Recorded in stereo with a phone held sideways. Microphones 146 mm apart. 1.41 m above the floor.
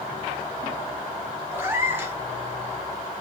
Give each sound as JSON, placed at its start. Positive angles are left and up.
{"t": 1.5, "sound": "a cat meowing", "side_deg": -15, "distance_m": 1.1}